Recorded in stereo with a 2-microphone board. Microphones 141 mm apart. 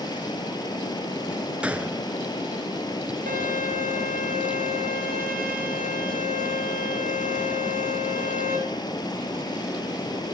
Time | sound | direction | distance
0.0 | running water | 30° left (ahead or behind) | 2 m
1.6 | a gunshot | 10° right (ahead or behind) | 0.5 m
3.3 | a violin | 85° right | 7.5 m